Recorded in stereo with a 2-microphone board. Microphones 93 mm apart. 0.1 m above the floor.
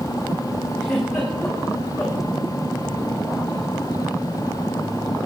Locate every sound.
0.8 s a giggle: 5° left (ahead or behind), 7 m